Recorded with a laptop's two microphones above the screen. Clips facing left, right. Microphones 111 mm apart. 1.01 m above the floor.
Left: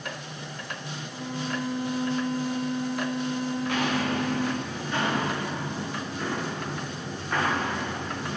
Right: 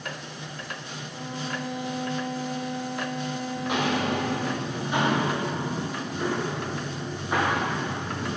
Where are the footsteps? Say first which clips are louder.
Right 3 dB; 20° right (ahead or behind), 5.5 m; by 8.4 s 10° right (ahead or behind), 9.5 m.